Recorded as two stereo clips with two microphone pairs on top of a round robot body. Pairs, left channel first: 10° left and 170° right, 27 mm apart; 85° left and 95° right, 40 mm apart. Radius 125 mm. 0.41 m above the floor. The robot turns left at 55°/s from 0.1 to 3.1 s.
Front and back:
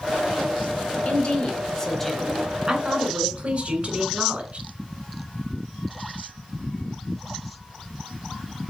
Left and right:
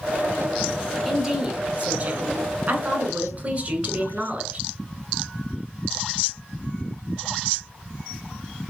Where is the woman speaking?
20° right, 3 m; by 4.6 s 130° right, 3 m.